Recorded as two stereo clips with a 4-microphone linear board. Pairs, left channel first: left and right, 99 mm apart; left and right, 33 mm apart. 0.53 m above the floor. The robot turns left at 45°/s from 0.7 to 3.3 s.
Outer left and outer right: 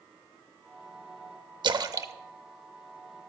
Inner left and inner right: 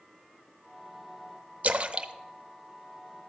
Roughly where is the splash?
Right.